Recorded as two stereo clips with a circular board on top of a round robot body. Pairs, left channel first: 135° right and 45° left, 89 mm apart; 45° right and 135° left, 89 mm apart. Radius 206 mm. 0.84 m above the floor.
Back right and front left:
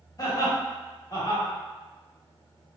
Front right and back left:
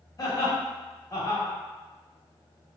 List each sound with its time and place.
0.2 s laughter: 95° right, 1.4 m